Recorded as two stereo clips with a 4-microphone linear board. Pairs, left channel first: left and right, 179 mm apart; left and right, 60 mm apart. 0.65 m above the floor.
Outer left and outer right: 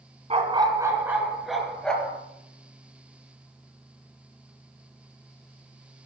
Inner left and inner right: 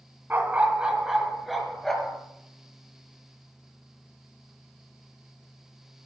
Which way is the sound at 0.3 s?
35° right (ahead or behind).